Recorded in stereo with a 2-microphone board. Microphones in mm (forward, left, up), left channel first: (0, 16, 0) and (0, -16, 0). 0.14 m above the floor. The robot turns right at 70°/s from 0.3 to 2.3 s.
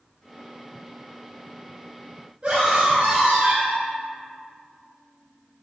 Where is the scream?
30° right (ahead or behind), 1.6 m.